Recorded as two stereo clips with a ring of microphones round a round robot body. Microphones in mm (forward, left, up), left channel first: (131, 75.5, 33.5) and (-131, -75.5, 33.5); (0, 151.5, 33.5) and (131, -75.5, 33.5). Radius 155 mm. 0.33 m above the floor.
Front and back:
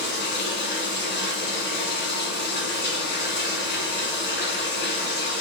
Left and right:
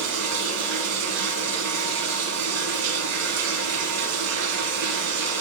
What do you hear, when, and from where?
0.0 s running water: 30° right, 0.9 m